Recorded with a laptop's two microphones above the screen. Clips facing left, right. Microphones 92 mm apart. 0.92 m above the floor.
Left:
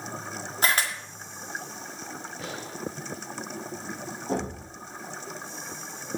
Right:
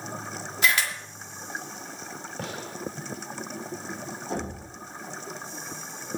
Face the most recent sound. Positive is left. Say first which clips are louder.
# left 4 dB
turn(degrees=30)  # may be behind; listen again after turning